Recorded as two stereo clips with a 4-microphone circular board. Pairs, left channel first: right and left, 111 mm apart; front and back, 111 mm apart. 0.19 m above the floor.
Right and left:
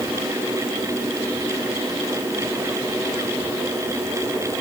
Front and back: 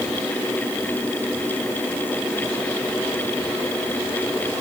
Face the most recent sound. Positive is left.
No sound to turn to.